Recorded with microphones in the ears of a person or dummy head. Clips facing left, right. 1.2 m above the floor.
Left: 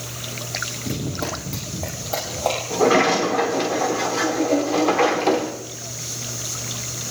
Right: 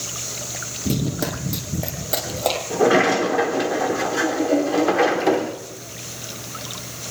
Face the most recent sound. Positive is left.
turn(degrees=-10)  # may be behind; listen again after turning